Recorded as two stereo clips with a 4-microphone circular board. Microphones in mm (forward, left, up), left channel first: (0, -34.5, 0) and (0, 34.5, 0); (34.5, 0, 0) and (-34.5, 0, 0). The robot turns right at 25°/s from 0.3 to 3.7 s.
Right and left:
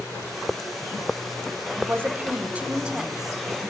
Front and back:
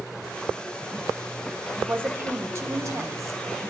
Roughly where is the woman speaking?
Behind left.